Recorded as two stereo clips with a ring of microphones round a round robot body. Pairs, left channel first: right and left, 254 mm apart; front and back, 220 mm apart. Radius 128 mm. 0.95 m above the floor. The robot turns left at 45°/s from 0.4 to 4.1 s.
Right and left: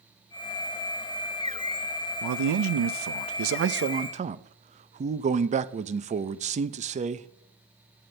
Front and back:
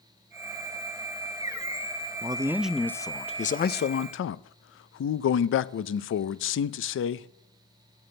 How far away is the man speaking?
About 0.5 m.